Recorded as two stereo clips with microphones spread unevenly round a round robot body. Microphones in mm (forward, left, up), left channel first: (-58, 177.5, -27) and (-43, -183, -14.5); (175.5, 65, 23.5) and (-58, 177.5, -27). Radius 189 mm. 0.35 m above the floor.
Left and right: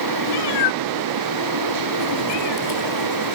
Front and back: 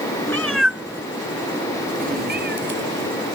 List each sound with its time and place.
0.3 s a cat meowing: 55° left; by 3.1 s 110° left